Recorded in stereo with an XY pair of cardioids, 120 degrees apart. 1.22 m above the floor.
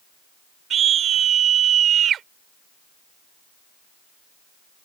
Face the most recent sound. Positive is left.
turn(degrees=-55)